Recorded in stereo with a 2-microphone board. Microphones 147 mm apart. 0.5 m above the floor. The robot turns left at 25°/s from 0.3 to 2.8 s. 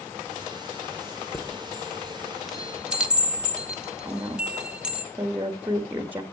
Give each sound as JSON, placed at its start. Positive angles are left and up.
{"t": 1.3, "sound": "a chime", "side_deg": 20, "distance_m": 0.8}
{"t": 4.0, "sound": "a woman speaking", "side_deg": -10, "distance_m": 1.3}